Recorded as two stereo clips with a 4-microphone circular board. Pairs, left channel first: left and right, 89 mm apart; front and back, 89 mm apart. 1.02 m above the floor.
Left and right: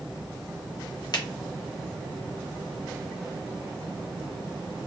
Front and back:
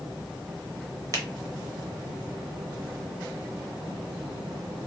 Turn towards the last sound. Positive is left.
turn(degrees=130)